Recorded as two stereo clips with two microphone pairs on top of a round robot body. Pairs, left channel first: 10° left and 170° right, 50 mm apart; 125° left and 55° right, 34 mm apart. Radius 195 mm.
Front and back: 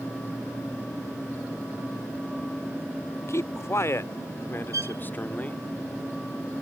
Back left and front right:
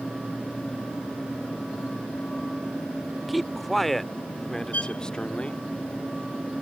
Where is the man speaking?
35° left; by 5.6 s 70° left.